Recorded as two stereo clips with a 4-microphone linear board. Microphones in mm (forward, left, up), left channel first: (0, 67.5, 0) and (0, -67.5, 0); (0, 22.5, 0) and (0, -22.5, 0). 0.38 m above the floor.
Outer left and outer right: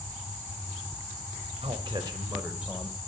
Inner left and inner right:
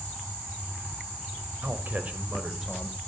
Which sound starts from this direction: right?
A man speaking, at 1.6 s.